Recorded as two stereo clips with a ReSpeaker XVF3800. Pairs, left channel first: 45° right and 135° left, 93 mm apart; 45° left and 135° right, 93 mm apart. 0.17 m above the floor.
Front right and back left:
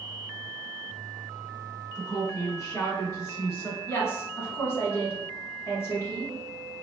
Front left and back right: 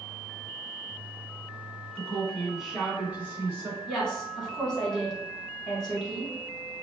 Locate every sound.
1.9 s a woman speaking: 25° right, 1.5 m; by 3.8 s 95° right, 1.6 m
3.9 s a woman speaking: 30° right, 1.1 m